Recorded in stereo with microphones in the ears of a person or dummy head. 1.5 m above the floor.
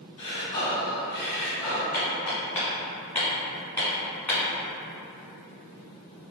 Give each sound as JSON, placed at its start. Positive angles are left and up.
{"t": 0.2, "sound": "breathing", "side_deg": 15, "distance_m": 1.0}
{"t": 1.9, "sound": "hammering", "side_deg": 5, "distance_m": 1.7}